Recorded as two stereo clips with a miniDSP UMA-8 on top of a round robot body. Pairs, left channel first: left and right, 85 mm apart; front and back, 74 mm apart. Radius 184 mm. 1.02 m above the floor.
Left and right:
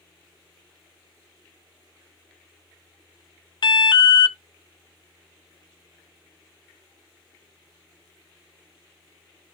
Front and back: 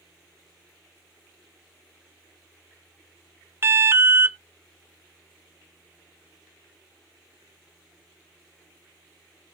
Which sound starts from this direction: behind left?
An alarm, at 3.6 s.